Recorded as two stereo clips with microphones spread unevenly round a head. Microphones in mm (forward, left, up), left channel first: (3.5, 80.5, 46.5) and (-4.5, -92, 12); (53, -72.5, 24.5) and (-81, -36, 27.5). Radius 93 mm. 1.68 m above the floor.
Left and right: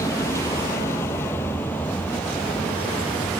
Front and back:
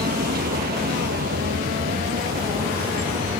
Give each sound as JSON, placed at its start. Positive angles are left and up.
{"t": 0.0, "sound": "a vehicle", "azimuth_deg": 160}